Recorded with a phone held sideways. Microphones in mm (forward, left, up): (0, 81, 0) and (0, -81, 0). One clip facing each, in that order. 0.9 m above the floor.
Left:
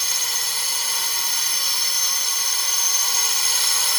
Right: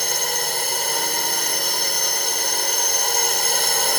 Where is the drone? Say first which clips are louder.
Right 10 dB; 60° right (ahead or behind).